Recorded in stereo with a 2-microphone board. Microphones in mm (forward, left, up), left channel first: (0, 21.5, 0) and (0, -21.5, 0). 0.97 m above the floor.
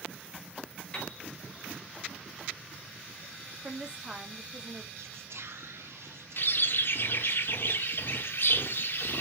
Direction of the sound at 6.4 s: 60° left (ahead or behind).